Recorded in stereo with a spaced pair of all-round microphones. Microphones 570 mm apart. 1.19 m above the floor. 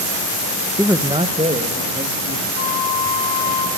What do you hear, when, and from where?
0.8 s a man speaking: centre (ahead or behind), 0.8 m; by 2.5 s 15° right (ahead or behind), 3 m
2.5 s a flute: 60° left (ahead or behind), 3 m